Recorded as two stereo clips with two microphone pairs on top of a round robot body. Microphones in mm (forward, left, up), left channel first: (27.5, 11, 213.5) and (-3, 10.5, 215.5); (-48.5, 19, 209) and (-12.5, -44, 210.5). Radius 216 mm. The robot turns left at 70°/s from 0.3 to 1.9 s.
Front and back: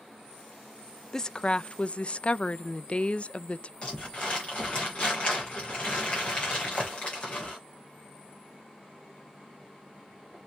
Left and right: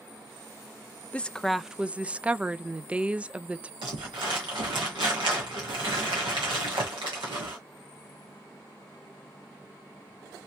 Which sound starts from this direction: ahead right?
Crumpling, at 3.8 s.